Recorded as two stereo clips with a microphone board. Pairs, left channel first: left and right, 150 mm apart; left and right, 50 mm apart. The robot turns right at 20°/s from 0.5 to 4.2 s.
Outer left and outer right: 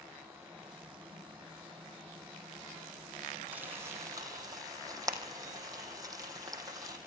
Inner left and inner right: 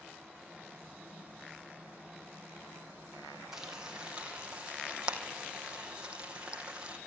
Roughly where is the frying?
Centre.